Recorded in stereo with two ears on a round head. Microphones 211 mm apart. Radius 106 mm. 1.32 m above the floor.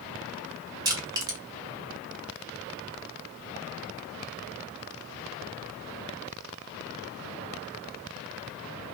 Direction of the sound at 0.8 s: 15° right (ahead or behind).